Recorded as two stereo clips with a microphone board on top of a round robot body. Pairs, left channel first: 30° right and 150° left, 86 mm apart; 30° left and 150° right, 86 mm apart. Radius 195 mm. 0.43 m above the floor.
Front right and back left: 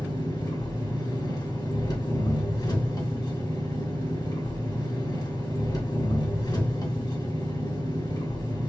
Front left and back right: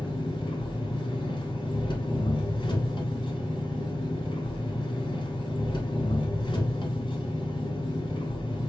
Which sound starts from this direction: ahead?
An engine running, at 0.0 s.